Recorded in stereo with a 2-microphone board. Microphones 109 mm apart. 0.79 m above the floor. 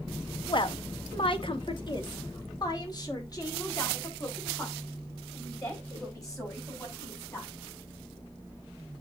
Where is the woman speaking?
45° left (ahead or behind), 0.9 m; by 7.5 s 30° left (ahead or behind), 6 m.